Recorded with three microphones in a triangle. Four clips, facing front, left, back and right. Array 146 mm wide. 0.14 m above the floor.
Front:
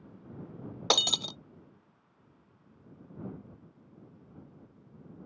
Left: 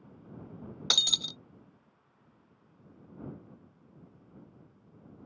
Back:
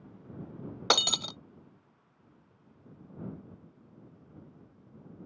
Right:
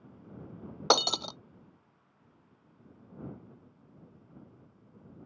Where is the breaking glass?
95° right.